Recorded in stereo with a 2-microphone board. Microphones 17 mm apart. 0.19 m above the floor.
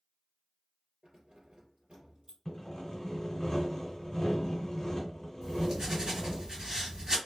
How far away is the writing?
About 2.5 m.